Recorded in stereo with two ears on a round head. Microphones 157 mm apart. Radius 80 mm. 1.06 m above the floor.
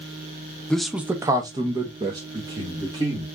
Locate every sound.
0.7 s a man speaking: 5° left (ahead or behind), 0.6 m; by 3.3 s 30° right (ahead or behind), 1.9 m